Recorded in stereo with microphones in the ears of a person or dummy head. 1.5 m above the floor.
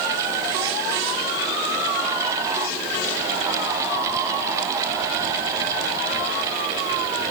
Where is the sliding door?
No sliding door in this recording.